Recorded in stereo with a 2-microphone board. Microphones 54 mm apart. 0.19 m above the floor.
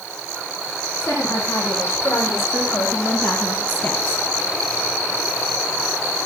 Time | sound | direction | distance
1.0 | a woman speaking | 55° left (ahead or behind) | 7.5 m